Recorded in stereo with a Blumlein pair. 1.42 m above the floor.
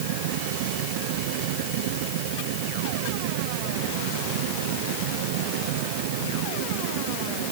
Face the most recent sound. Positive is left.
turn(degrees=-50)